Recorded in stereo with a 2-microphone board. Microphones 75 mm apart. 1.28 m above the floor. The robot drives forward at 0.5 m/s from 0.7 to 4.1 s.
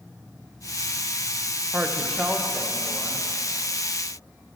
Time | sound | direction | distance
1.7 | a woman speaking | 20° right (ahead or behind) | 0.5 m